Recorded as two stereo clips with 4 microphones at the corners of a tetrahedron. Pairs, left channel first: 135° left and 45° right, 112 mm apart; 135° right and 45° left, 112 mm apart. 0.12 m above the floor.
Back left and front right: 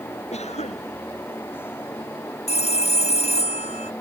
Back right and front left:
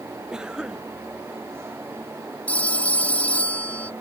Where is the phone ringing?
145° left.